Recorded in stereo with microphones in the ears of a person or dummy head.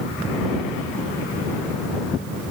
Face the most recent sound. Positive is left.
No sound to turn to.